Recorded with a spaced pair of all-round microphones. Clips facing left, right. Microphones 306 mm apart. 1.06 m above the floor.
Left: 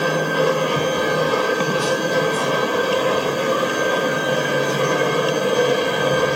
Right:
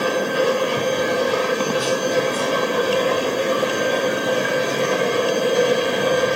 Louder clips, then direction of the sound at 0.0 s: Even; 60° left (ahead or behind).